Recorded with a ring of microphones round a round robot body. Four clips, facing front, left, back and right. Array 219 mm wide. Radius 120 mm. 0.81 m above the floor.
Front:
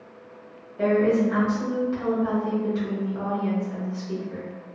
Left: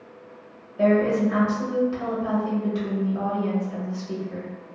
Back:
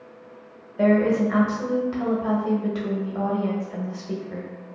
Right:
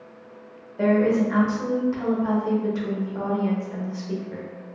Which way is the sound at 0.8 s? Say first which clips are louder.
Even, back 1 dB; 170° right.